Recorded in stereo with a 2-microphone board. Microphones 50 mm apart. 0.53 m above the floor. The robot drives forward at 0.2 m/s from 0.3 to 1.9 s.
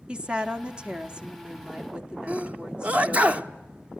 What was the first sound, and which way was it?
A woman speaking, 20° right (ahead or behind).